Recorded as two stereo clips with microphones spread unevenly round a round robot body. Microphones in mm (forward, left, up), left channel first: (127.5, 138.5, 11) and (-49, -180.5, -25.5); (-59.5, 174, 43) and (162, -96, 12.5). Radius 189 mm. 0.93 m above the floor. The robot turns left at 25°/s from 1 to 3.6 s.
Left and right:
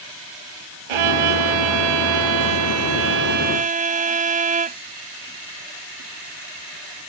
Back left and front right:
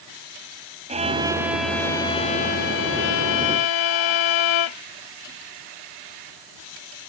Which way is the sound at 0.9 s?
125° right.